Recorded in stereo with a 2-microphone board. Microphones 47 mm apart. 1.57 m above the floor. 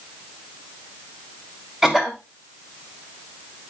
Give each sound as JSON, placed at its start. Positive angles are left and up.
{"t": 1.8, "sound": "a cough", "side_deg": -15, "distance_m": 2.5}